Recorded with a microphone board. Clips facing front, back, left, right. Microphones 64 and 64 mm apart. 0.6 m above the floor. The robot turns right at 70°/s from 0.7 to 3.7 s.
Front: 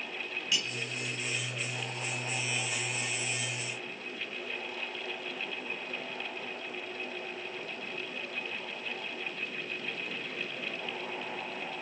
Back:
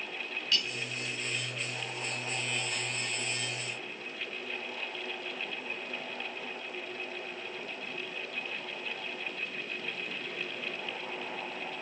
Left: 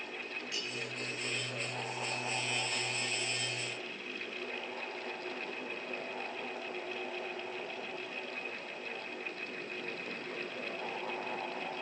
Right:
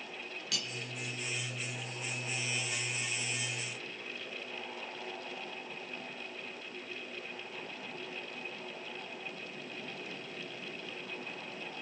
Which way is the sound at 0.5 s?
75° right.